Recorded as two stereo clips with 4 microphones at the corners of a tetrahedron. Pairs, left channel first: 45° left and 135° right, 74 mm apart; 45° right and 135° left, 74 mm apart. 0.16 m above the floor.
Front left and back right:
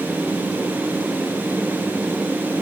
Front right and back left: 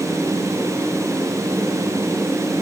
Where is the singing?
I don't hear singing.